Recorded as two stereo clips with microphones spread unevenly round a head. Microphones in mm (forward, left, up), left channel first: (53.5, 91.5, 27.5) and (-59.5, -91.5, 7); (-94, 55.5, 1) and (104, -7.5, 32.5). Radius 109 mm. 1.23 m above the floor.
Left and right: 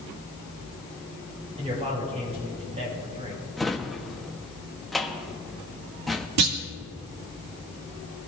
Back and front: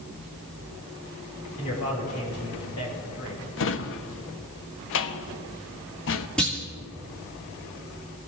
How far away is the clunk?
About 2.5 m.